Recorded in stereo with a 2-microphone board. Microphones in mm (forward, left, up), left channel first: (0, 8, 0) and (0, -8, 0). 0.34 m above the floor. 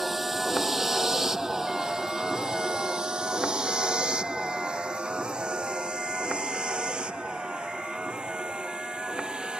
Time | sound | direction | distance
0.0 | a vehicle | 15° right (ahead or behind) | ?